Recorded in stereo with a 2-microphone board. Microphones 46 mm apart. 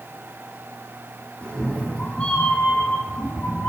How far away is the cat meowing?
About 1.6 m.